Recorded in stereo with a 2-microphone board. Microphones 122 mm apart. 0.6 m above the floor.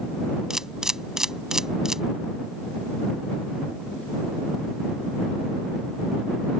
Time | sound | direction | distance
0.5 | a camera shutter | 5° right (ahead or behind) | ?